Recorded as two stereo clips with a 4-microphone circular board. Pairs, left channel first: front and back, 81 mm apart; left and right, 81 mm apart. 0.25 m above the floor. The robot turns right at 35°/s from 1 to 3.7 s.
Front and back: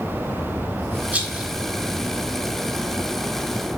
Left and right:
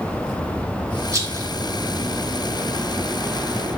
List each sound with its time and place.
1.1 s a rattle: 120° right, 0.8 m; by 1.5 s 105° right, 0.8 m